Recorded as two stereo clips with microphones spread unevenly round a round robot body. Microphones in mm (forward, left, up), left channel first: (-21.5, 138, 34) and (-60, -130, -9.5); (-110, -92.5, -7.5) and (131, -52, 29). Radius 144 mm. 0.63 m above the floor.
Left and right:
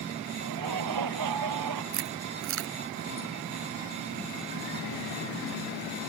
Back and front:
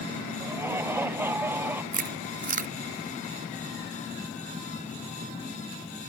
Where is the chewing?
50° right.